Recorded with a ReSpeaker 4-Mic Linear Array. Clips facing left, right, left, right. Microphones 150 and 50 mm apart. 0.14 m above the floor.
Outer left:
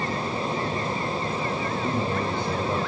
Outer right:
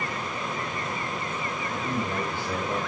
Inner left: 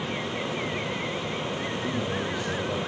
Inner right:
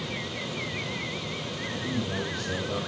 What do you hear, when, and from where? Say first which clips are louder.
1.7 s a man speaking: outer left 1 dB, inner right 1 dB; 25° left (ahead or behind), 5.5 m; by 2.8 s 15° left (ahead or behind), 5 m